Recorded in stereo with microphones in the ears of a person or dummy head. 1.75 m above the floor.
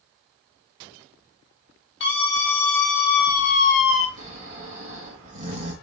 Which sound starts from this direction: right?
Snoring, at 4.2 s.